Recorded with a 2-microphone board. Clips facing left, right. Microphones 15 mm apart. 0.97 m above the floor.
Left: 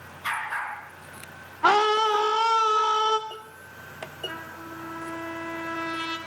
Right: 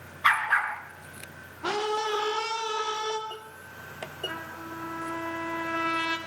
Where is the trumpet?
55° right (ahead or behind), 3 m.